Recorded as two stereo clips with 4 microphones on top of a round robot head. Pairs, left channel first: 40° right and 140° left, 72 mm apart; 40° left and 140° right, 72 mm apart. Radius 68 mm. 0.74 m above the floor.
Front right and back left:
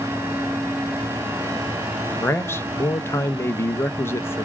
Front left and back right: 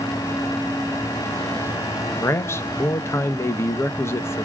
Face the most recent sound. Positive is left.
turn(degrees=0)